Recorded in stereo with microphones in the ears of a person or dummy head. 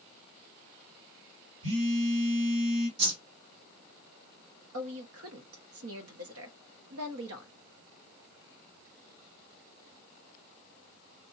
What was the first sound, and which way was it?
A phone buzzing, 70° right (ahead or behind).